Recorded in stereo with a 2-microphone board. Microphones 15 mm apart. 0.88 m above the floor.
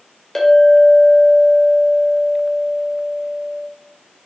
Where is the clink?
30° left (ahead or behind), 1.9 m.